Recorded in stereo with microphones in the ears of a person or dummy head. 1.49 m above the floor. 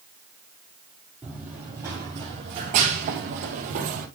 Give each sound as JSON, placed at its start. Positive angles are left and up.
{"t": 1.2, "sound": "running footsteps", "side_deg": -10, "distance_m": 3.0}